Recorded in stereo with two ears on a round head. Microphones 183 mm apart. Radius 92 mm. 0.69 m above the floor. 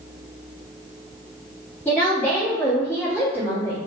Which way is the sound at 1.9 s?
10° left (ahead or behind).